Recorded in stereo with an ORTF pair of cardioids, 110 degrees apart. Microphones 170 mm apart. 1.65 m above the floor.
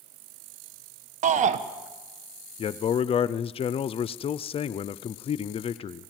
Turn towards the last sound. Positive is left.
turn(degrees=35)